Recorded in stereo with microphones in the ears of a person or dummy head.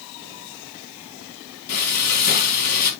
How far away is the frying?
About 4 m.